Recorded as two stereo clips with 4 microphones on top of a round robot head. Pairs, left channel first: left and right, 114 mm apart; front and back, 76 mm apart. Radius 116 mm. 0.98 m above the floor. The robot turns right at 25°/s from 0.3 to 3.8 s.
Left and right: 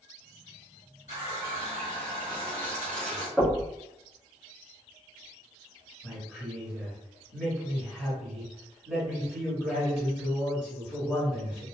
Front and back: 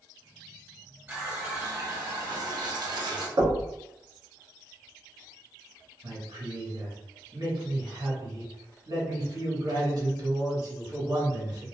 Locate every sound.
1.1 s a running tap: 115° left, 1.5 m; by 3.3 s 170° left, 1.5 m
3.4 s knocking: straight behind, 1.0 m; by 3.7 s 170° right, 1.0 m
6.0 s a man speaking: 170° right, 1.7 m